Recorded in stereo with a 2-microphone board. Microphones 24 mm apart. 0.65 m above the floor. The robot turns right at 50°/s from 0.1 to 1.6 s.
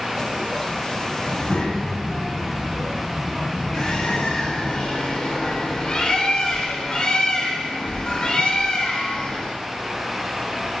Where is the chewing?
I don't hear chewing.